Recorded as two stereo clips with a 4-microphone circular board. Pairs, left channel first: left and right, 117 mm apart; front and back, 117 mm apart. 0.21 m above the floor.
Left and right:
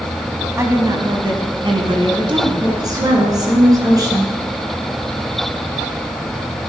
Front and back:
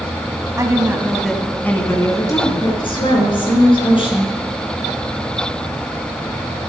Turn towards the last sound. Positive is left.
turn(degrees=-35)